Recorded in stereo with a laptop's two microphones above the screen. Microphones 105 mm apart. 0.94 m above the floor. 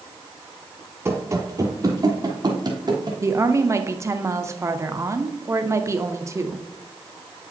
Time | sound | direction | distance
1.1 | running footsteps | 25° right (ahead or behind) | 1.0 m
3.2 | a woman speaking | 25° right (ahead or behind) | 0.6 m